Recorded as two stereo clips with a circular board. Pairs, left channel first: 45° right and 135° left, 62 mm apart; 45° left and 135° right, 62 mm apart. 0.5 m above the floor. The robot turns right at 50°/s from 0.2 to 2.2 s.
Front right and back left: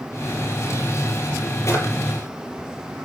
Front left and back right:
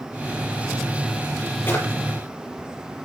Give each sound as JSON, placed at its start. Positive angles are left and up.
{"t": 1.7, "sound": "a drawer", "azimuth_deg": -5, "distance_m": 7.0}